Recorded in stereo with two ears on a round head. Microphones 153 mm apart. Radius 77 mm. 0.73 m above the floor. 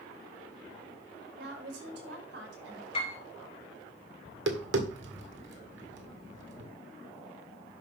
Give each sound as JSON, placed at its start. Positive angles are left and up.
{"t": 1.4, "sound": "a woman speaking", "side_deg": -70, "distance_m": 3.5}
{"t": 2.9, "sound": "a piano", "side_deg": 35, "distance_m": 4.0}
{"t": 4.2, "sound": "tapping", "side_deg": -75, "distance_m": 1.8}